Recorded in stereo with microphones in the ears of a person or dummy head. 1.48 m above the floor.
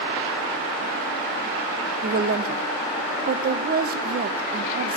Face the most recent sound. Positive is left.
turn(degrees=-40)  # may be behind; listen again after turning